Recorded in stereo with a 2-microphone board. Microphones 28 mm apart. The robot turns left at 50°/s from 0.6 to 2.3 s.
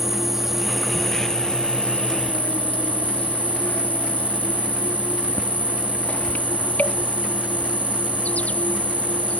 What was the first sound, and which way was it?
An insect, 165° right.